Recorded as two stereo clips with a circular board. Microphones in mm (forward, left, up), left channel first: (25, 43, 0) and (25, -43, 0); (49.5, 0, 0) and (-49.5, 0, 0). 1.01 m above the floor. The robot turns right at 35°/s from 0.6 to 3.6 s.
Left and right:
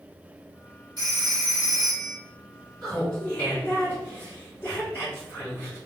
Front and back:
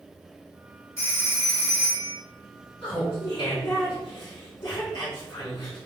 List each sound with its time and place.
1.0 s a phone ringing: 60° right, 1.5 m; by 2.2 s 15° right, 1.5 m
2.8 s laughter: straight ahead, 1.8 m; by 5.8 s 30° left, 1.8 m